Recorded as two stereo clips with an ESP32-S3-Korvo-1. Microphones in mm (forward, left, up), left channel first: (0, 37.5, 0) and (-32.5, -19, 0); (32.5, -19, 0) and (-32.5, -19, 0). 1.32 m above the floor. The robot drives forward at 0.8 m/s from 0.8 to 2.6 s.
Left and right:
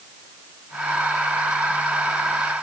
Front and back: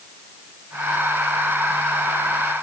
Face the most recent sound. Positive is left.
No sound to turn to.